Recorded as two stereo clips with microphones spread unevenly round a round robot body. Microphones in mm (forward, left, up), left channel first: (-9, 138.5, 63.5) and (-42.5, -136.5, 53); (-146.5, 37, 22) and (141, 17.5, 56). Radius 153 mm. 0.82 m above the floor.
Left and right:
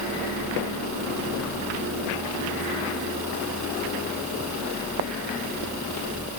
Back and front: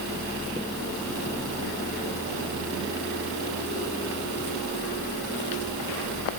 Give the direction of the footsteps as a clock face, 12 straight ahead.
I don't hear footsteps.